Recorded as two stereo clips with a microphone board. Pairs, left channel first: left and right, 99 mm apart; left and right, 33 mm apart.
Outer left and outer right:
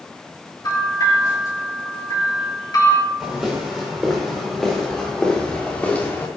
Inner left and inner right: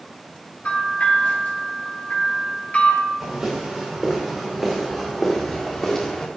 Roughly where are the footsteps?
Centre.